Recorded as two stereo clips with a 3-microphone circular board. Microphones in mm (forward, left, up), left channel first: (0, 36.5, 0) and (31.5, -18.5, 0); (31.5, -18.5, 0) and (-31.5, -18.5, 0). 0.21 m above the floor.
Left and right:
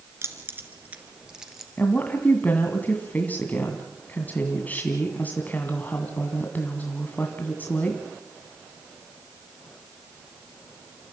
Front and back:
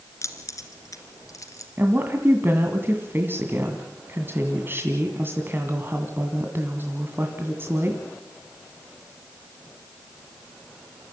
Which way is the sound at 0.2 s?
25° right.